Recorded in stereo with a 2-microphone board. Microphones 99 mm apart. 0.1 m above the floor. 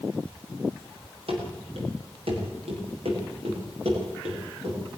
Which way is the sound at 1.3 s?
65° right (ahead or behind).